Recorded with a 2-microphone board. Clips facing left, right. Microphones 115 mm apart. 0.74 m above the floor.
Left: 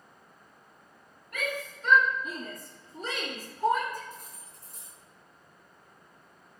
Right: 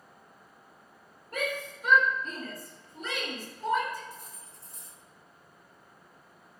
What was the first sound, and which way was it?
A shout, 40° right (ahead or behind).